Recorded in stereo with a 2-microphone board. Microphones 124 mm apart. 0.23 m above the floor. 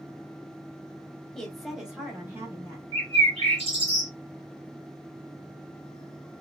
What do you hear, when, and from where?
1.4 s a woman speaking: 5° left (ahead or behind), 1.0 m; by 2.8 s 15° right (ahead or behind), 1.4 m
2.9 s a bird: 50° right (ahead or behind), 1.3 m